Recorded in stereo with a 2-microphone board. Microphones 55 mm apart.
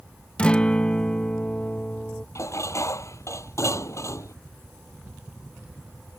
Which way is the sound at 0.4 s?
20° left (ahead or behind).